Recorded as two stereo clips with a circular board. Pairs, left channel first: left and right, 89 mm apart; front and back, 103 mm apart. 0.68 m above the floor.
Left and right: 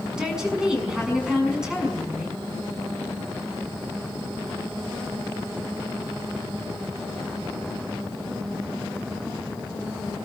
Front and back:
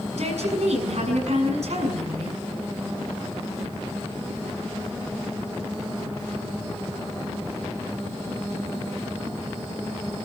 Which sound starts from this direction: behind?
A woman speaking, at 0.1 s.